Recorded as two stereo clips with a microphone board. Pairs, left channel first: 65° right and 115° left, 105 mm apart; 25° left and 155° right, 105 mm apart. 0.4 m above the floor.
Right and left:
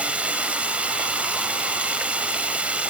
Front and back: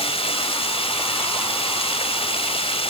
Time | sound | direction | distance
0.0 | running water | 35° left | 1.8 m